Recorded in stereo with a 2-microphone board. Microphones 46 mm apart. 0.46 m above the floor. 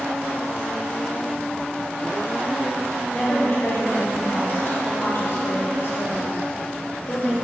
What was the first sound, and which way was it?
A woman speaking, 60° left (ahead or behind).